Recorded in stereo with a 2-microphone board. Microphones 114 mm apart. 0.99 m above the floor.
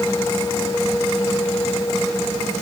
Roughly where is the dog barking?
No dog barking in this recording.